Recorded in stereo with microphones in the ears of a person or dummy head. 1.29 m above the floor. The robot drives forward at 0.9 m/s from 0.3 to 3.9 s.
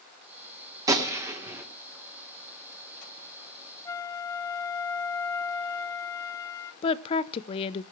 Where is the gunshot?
15° right (ahead or behind), 1.2 m; by 1.6 s 10° right (ahead or behind), 1.9 m.